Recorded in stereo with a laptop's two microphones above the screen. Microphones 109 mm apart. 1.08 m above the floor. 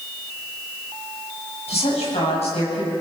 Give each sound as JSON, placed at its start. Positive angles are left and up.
{"t": 1.7, "sound": "a woman speaking", "side_deg": 85, "distance_m": 8.0}